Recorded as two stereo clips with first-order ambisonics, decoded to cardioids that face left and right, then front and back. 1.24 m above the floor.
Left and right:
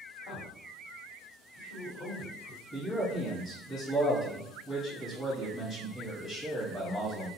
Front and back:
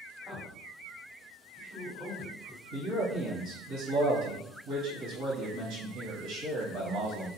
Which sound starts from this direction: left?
A man speaking, at 0.2 s.